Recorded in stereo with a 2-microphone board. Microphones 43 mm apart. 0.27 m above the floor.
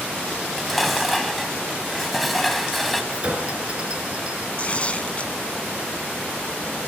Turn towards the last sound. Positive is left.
turn(degrees=30)  # may be behind; listen again after turning